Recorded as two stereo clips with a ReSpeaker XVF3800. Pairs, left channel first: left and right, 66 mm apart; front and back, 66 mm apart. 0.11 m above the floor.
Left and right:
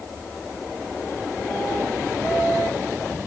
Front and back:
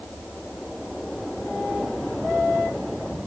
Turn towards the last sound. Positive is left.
No sound to turn to.